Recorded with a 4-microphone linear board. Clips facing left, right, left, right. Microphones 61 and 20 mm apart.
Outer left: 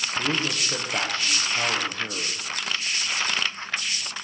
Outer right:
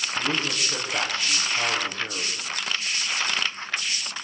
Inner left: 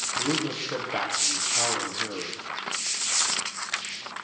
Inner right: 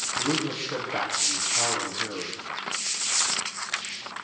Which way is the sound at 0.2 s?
25° left (ahead or behind).